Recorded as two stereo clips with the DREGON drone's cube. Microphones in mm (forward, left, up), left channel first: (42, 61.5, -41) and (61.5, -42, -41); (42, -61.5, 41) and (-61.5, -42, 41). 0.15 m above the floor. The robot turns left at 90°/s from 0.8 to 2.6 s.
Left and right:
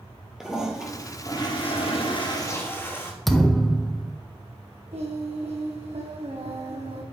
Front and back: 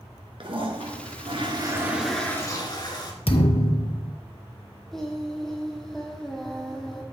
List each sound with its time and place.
0.4 s a toilet flushing: 165° right, 2 m; by 3.1 s 35° left, 2 m
3.3 s a thud: 10° left, 1.0 m
4.9 s singing: 100° right, 2 m